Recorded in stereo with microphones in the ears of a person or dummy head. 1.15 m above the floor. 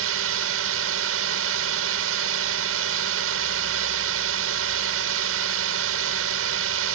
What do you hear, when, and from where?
0.0 s a drone: 75° right (ahead or behind)